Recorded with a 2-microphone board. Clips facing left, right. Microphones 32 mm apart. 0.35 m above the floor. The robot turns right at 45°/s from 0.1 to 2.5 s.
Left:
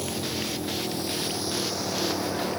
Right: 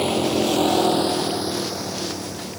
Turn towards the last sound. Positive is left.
turn(degrees=35)  # may be behind; listen again after turning